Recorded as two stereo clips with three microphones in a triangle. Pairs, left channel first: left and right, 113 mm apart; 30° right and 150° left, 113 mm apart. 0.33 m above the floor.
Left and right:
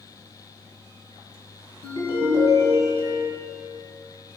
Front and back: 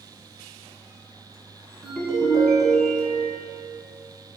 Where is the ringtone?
60° left, 1.1 m.